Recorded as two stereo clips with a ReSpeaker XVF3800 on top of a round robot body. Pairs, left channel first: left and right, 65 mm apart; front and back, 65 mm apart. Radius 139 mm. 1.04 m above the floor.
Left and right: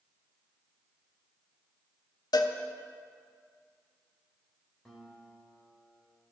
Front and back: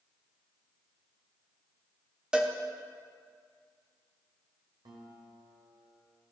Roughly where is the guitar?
Behind.